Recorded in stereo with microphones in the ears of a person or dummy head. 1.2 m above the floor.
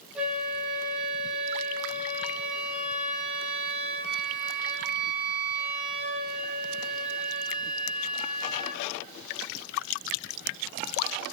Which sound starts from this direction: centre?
A flute, at 0.1 s.